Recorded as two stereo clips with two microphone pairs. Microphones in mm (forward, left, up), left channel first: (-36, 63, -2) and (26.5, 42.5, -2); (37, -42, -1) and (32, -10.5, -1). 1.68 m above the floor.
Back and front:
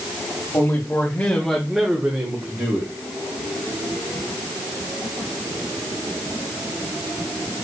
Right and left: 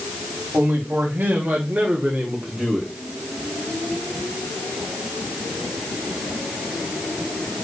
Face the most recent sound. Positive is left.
turn(degrees=10)